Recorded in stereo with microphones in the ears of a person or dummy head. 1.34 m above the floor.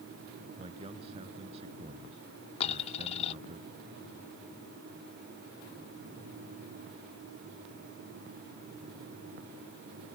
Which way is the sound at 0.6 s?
30° right (ahead or behind).